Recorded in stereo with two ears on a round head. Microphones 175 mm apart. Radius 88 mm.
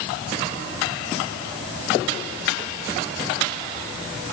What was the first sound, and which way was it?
Only background noise.